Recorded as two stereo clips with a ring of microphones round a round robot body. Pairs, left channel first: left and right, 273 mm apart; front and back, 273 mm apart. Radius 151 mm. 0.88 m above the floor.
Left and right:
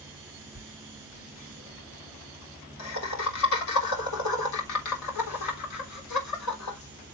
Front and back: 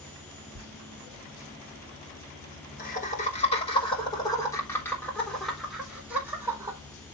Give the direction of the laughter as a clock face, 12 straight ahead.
11 o'clock.